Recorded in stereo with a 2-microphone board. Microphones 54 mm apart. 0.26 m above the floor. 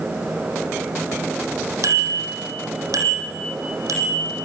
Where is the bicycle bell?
80° right, 7 m; by 4.5 s 85° right, 7.5 m.